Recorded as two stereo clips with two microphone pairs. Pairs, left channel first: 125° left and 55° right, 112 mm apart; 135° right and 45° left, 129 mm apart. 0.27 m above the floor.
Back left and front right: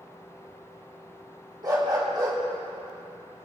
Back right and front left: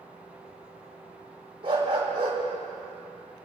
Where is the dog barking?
Straight ahead, 5 m.